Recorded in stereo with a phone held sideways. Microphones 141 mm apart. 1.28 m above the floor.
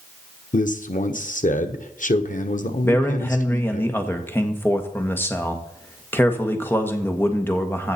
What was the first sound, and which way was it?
A man speaking, 65° left (ahead or behind).